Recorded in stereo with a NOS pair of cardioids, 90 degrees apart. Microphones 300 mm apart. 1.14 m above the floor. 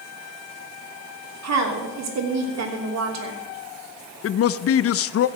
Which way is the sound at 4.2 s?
50° left.